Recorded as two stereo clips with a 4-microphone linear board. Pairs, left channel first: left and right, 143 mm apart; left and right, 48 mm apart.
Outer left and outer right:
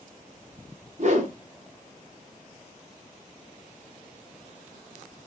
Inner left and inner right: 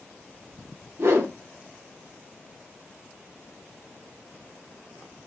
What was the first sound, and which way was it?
A whoosh, 55° right (ahead or behind).